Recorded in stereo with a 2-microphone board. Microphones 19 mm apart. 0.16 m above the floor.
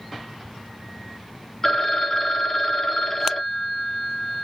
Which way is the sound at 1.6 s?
25° left (ahead or behind).